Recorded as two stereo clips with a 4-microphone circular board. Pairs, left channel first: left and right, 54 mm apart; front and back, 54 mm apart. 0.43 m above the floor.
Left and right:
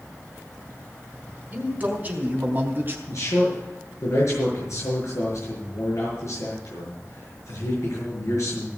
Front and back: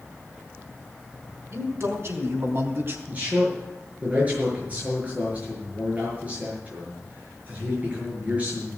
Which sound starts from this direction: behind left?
A man speaking, at 3.1 s.